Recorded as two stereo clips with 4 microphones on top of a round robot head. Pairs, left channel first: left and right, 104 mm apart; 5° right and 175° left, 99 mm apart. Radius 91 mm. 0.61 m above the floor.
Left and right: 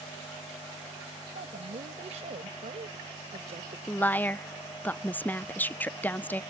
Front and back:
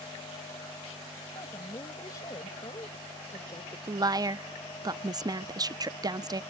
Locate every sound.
1.4 s a woman speaking: 70° right; by 3.8 s 60° right
3.9 s a woman speaking: 155° left